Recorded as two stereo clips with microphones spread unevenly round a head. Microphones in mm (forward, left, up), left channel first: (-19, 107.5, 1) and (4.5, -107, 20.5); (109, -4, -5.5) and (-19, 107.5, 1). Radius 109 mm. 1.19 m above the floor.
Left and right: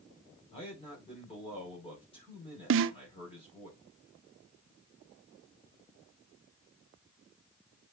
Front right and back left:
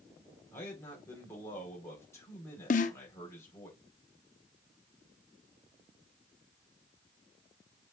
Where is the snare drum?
75° right, 0.5 m.